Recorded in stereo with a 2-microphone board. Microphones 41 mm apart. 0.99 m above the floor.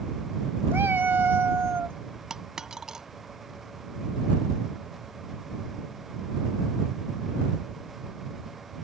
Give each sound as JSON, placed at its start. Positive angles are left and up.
{"t": 0.7, "sound": "a cat meowing", "side_deg": -70}
{"t": 2.3, "sound": "a dropped coin", "side_deg": -15}